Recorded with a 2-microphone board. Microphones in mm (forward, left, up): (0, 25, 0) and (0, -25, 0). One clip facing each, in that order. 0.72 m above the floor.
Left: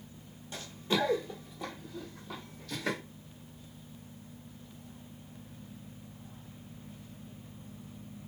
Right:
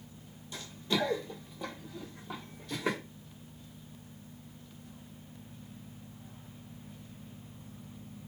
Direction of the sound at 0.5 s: 35° left (ahead or behind).